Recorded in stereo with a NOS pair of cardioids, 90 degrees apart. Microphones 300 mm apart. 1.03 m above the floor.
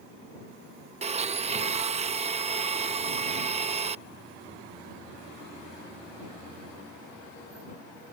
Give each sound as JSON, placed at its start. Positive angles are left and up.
{"t": 1.0, "sound": "a blender", "azimuth_deg": -20}